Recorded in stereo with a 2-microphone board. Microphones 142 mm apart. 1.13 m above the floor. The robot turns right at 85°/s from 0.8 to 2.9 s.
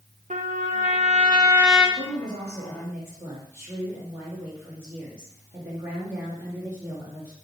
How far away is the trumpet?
About 1.0 m.